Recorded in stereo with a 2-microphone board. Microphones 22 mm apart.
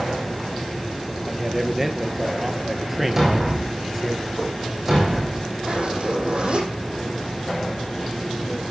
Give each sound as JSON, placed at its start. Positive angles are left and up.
{"t": 1.3, "sound": "a man speaking", "side_deg": -10, "distance_m": 2.0}
{"t": 3.2, "sound": "a thud", "side_deg": -15, "distance_m": 3.0}
{"t": 5.7, "sound": "a zipper", "side_deg": -50, "distance_m": 7.0}